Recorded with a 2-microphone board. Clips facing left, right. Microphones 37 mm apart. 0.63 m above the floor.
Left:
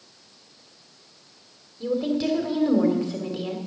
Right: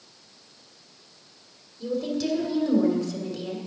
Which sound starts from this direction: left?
A woman speaking, at 1.8 s.